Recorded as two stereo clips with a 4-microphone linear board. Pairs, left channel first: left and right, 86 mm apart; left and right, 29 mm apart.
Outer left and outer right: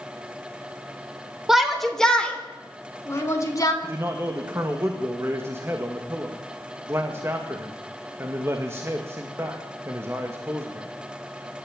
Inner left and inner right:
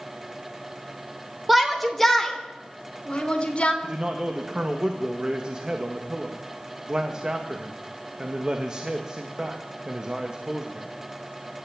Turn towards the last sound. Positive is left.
turn(degrees=-30)  # may be behind; listen again after turning